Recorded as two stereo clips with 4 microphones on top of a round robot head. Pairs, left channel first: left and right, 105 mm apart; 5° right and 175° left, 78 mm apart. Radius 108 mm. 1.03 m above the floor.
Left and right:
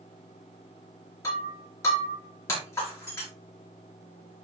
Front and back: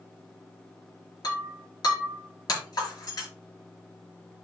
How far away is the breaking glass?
About 5 m.